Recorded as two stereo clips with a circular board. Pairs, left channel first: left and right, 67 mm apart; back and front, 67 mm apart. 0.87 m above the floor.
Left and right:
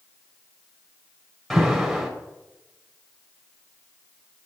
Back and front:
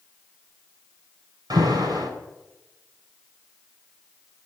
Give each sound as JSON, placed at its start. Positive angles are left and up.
{"t": 1.5, "sound": "an alarm", "azimuth_deg": 5, "distance_m": 4.0}